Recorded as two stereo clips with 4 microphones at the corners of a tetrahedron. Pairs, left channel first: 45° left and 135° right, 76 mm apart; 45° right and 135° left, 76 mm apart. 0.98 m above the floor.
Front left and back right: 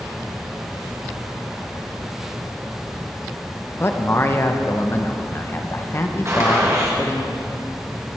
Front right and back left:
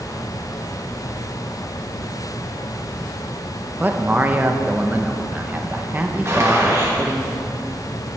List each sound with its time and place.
3.8 s a man speaking: 80° left, 0.7 m
6.2 s a gunshot: 175° right, 1.6 m